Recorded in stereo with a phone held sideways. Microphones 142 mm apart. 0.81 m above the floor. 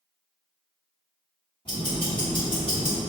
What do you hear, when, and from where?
1.6 s ticking: 35° left (ahead or behind), 1.4 m